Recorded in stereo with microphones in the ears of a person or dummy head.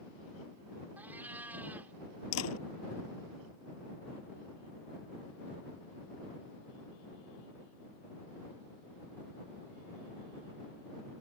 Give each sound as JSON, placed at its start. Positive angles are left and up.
{"t": 1.0, "sound": "a cat meowing", "side_deg": -10}
{"t": 2.3, "sound": "a door slam", "side_deg": 90}